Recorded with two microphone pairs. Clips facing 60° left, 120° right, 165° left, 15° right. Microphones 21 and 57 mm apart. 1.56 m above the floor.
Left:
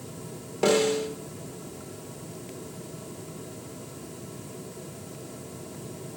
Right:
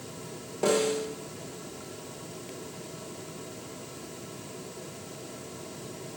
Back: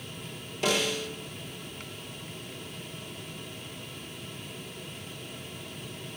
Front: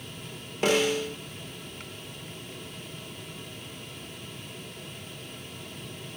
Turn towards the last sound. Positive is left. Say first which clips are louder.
# left 3 dB, front 4 dB
turn(degrees=25)